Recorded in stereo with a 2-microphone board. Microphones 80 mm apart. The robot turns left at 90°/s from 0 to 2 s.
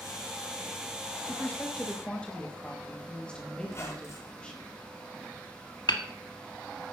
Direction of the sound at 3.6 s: 35° left (ahead or behind).